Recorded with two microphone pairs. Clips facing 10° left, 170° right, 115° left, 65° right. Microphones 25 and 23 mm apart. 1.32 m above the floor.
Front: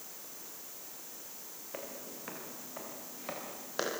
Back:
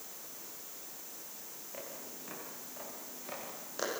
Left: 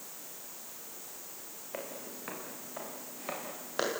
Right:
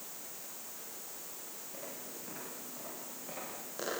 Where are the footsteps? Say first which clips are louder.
Front 3 dB, left 6 dB; 75° left, 7.5 m; by 3.9 s 70° left, 9.5 m.